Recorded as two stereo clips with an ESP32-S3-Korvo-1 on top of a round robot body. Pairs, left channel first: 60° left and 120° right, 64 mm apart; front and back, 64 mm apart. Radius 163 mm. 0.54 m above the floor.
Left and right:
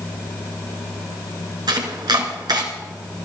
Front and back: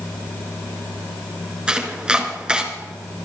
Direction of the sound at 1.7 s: 105° right.